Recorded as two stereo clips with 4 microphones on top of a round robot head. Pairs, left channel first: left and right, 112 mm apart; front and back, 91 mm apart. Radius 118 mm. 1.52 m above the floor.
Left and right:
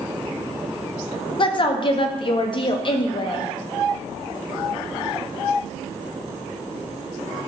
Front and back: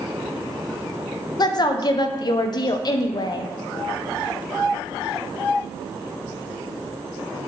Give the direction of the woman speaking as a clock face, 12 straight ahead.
11 o'clock.